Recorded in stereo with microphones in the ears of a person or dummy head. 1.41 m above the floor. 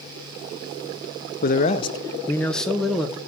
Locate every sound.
1.4 s a man speaking: 45° left (ahead or behind), 0.6 m; by 3.2 s 5° right (ahead or behind), 1.4 m